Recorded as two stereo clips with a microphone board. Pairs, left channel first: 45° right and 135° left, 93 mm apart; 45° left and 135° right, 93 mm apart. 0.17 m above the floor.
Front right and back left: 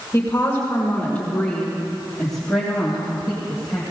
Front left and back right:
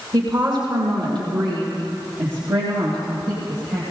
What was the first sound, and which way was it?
A woman speaking, 105° right.